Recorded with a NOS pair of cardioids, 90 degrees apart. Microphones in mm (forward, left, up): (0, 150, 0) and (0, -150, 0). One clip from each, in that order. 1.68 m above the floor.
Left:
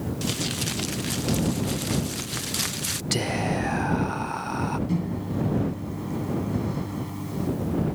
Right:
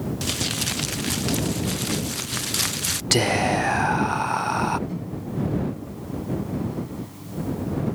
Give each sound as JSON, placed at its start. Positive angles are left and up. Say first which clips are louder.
{"t": 0.2, "sound": "crumpling", "louder": "right 3 dB", "azimuth_deg": -15}
{"t": 3.1, "sound": "whispering", "louder": "right 7 dB", "azimuth_deg": -30}
{"t": 4.9, "sound": "a microwave", "louder": "left 2 dB", "azimuth_deg": 55}